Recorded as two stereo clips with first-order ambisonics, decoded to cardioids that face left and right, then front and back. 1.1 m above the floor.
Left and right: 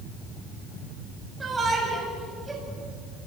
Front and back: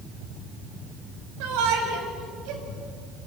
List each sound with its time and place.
1.4 s a shout: 165° right, 7 m; by 2.6 s 170° right, 8 m